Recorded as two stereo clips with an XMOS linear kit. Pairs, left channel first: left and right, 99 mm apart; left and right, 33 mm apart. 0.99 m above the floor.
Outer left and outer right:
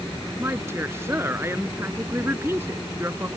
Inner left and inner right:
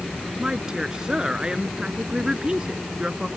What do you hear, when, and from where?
0.4 s a woman speaking: 25° right (ahead or behind)